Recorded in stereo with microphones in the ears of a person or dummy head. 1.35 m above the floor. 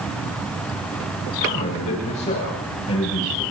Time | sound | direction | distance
1.4 | a man speaking | 40° left (ahead or behind) | 5.5 m